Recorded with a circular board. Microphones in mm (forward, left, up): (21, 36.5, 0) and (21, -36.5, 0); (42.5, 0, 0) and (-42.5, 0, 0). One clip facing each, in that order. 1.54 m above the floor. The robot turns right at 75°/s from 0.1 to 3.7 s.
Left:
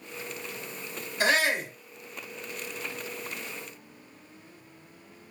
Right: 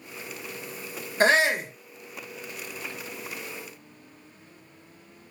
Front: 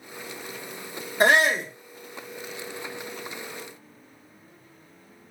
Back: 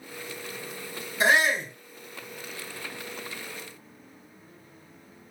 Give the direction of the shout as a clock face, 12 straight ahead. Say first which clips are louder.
Right 4 dB, front 3 dB; 1 o'clock.